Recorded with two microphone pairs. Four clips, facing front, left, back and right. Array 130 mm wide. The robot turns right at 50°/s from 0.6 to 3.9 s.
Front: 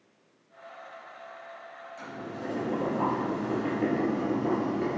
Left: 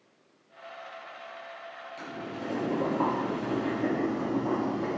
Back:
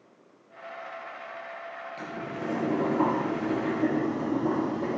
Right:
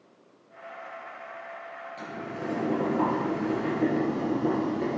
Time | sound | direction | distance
2.0 | boiling | 155° right | 4 m